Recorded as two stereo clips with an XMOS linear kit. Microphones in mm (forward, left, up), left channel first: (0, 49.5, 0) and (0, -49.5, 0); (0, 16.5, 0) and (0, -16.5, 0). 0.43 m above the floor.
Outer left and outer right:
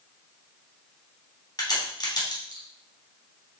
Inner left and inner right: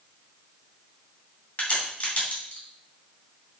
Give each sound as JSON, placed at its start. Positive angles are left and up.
{"t": 1.6, "sound": "a crack", "side_deg": 45, "distance_m": 3.0}